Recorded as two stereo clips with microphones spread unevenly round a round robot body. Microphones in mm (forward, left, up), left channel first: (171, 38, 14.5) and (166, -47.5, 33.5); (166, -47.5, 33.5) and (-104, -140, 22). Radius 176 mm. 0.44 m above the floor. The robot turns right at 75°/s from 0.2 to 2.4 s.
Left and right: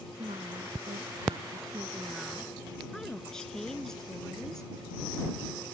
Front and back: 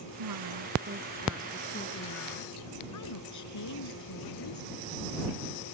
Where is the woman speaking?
165° right; by 4.7 s straight ahead.